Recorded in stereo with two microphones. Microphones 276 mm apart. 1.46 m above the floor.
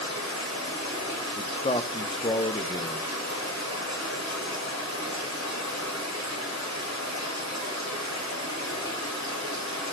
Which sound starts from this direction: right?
Running water, at 0.0 s.